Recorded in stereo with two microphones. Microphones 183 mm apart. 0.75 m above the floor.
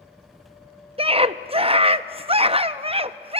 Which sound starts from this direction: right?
A scream, at 1.0 s.